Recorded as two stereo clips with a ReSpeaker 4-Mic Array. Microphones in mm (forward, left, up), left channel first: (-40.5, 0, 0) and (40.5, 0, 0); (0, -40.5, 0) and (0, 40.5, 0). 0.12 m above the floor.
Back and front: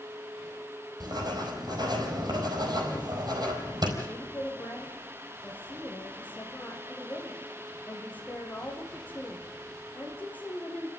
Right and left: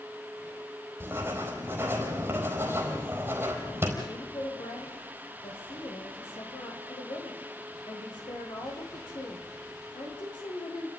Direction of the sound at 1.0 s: 30° left.